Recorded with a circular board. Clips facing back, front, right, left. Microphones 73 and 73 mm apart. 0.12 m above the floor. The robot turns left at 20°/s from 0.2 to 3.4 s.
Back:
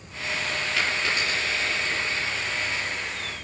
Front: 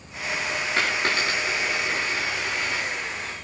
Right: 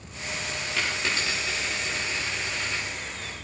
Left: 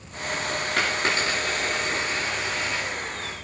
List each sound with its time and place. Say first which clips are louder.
0.8 s a dropped coin: front 3 dB, left 4 dB; 50° left, 7.5 m; by 2.9 s 10° left, 7.5 m